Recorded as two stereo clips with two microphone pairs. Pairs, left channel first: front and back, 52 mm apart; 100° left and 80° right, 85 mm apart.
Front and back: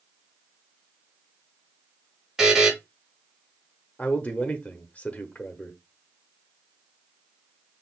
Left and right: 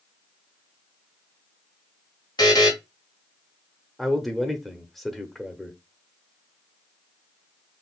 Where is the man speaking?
10° left, 0.8 m.